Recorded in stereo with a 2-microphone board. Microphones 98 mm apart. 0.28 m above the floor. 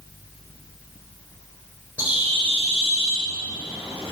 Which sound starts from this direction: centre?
A bird, at 2.0 s.